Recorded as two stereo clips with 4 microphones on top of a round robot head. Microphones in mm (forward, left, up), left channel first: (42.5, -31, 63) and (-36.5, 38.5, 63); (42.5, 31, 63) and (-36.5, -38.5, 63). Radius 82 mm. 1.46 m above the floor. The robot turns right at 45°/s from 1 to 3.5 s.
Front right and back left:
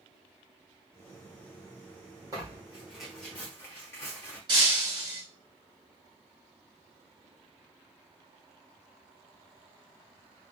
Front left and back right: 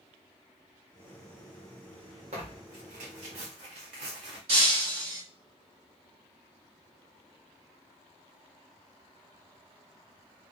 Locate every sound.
2.3 s tearing paper: 165° right, 1.3 m; by 4.4 s 110° right, 1.3 m
4.5 s breaking glass: 170° right, 1.7 m